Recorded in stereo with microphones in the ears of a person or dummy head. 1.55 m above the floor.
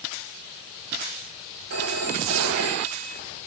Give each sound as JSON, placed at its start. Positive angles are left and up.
{"t": 1.7, "sound": "a phone ringing", "side_deg": -65, "distance_m": 2.0}